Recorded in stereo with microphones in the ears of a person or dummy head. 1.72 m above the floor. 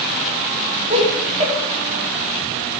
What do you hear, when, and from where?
0.9 s laughter: 35° right (ahead or behind), 3.5 m